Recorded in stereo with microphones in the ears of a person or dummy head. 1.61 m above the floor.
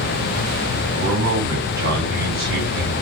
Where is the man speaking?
60° right (ahead or behind), 2.0 m.